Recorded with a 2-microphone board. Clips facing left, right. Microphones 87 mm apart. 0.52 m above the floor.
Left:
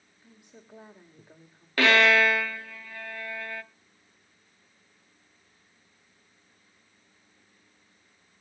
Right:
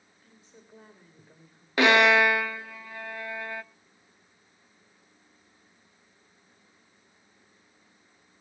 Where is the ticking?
No ticking in this recording.